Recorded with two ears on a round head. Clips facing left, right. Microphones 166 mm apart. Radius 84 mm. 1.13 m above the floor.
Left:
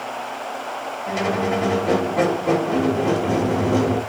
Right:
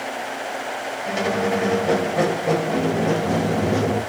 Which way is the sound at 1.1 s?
Centre (ahead or behind).